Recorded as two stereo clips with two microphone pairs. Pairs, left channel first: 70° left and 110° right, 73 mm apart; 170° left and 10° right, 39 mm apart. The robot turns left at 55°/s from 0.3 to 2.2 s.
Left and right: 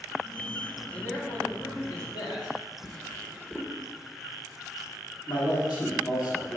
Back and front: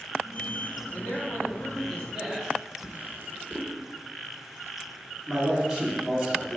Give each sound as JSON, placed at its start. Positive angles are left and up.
{"t": 0.9, "sound": "a man speaking", "azimuth_deg": 145, "distance_m": 3.0}
{"t": 2.8, "sound": "a drawer", "azimuth_deg": 0, "distance_m": 1.1}
{"t": 5.3, "sound": "a man speaking", "azimuth_deg": 70, "distance_m": 2.0}